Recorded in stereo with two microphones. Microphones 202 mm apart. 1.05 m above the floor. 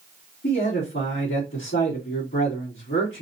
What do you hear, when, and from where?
0.4 s a man speaking: 70° left (ahead or behind), 2.5 m